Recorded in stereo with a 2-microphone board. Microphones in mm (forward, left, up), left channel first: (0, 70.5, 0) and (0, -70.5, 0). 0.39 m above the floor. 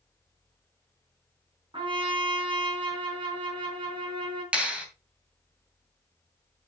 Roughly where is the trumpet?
Right.